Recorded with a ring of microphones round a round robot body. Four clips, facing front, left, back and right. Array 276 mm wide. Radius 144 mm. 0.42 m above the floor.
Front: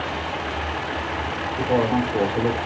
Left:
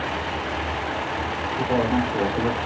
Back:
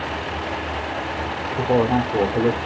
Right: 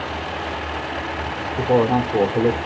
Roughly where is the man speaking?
Behind right.